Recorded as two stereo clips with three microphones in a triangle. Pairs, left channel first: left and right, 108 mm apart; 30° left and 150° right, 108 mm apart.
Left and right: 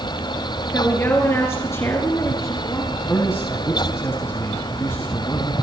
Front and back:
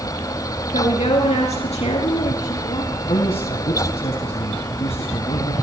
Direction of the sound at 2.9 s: 25° left.